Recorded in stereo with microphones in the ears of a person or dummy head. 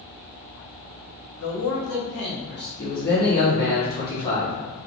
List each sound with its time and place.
1.4 s a man speaking: 80° left, 0.9 m; by 2.7 s 55° left (ahead or behind), 1.3 m
2.8 s a man speaking: 25° left (ahead or behind), 1.6 m